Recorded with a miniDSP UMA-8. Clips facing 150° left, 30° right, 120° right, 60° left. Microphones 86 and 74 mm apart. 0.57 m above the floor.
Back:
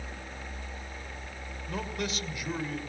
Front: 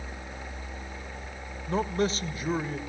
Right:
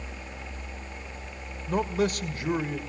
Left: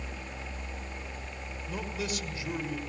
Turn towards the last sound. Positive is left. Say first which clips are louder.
# front 8 dB, right 10 dB
turn(degrees=-85)